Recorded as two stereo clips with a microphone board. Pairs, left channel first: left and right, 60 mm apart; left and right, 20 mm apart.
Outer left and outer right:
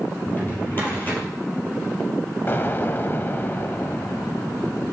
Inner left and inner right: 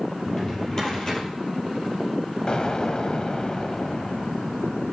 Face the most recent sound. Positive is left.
turn(degrees=35)  # may be behind; listen again after turning